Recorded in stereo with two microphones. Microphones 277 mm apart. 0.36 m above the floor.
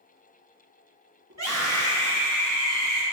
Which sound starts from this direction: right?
A scream, at 1.3 s.